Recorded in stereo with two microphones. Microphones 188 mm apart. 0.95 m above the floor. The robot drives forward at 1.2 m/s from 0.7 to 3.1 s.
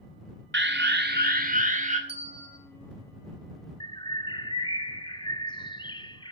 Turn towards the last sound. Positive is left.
turn(degrees=25)  # may be behind; listen again after turning